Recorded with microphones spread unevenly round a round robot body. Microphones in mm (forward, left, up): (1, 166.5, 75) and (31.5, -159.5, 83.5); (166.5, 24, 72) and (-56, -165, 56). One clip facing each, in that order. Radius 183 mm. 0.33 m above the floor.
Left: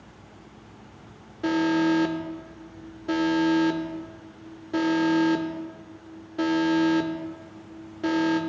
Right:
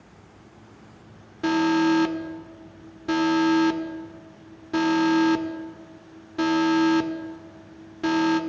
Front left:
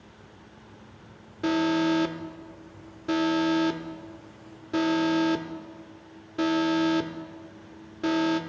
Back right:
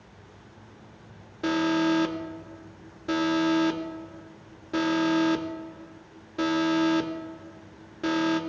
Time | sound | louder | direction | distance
1.4 | an alarm | right 2 dB, even | 55° right | 0.5 m